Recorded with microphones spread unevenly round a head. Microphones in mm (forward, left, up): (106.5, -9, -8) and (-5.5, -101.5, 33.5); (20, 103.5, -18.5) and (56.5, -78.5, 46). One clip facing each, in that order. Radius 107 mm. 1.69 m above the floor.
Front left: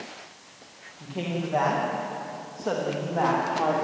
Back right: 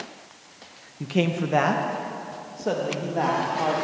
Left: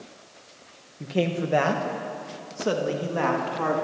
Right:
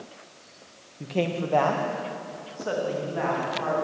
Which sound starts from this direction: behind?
A man speaking, at 1.0 s.